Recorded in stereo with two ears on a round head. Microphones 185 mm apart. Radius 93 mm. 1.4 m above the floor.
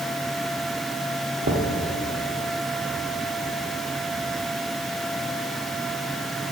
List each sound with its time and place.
1.4 s knocking: 45° right (ahead or behind), 1.4 m